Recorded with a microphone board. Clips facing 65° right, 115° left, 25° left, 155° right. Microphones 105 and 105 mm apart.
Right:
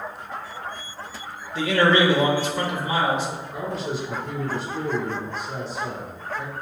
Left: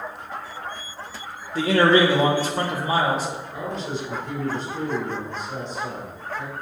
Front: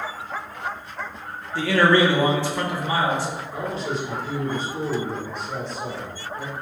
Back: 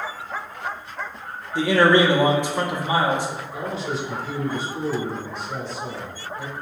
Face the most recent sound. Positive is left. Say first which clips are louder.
# right 1 dB, front 1 dB
turn(degrees=15)